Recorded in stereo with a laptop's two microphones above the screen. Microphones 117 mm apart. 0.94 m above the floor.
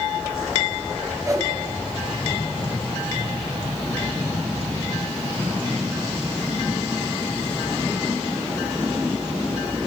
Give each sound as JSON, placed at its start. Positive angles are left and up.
{"t": 1.2, "sound": "a whoosh", "side_deg": -25, "distance_m": 4.5}